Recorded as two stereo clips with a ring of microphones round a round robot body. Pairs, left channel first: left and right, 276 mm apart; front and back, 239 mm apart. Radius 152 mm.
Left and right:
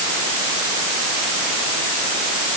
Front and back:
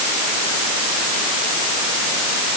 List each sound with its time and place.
Only background noise.